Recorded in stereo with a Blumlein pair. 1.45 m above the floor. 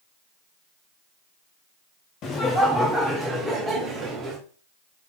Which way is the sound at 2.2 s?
30° left.